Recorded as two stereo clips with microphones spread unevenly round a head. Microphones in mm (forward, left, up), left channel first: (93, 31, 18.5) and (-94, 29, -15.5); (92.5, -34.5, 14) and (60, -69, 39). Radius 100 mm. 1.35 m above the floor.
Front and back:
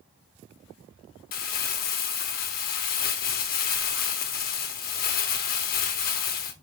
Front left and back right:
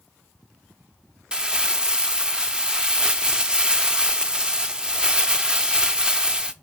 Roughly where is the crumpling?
Ahead right.